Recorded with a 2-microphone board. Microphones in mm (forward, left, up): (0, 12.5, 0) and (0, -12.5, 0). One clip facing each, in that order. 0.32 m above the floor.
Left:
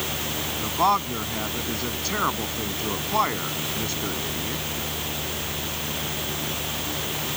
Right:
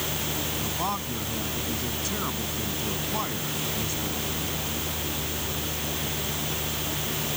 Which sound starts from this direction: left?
A man speaking, at 0.6 s.